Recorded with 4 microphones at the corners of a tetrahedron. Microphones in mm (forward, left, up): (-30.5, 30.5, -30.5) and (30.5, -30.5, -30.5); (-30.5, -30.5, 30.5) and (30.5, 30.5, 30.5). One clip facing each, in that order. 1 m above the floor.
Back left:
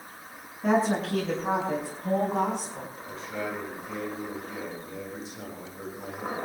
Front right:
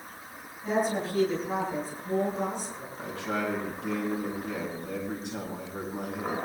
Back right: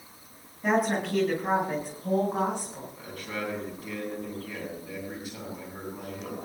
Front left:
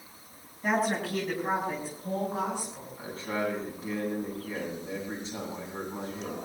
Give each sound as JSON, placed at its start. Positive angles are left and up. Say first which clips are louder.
{"t": 0.6, "sound": "a woman speaking", "louder": "back left 4 dB, back right 2 dB", "azimuth_deg": 140, "distance_m": 8.5}
{"t": 3.0, "sound": "a man speaking", "louder": "front right 5 dB, front left 4 dB", "azimuth_deg": -20, "distance_m": 9.5}